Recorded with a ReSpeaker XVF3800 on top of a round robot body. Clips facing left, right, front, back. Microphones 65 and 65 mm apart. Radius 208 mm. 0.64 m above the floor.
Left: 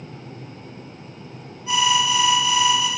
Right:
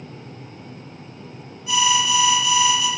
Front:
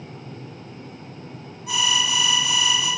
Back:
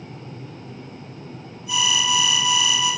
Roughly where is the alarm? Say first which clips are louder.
Even, back 1 dB; ahead left.